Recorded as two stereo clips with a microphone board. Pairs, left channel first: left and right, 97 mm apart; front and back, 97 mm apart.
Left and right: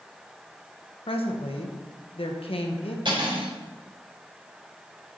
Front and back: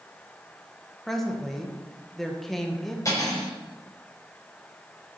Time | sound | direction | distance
1.1 | a woman speaking | 90° left | 1.3 m
3.0 | cutlery clinking | 55° right | 4.5 m